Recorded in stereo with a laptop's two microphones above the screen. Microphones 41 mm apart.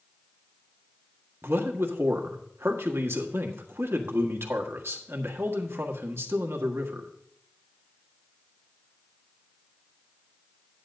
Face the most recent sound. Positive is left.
turn(degrees=-75)  # may be behind; listen again after turning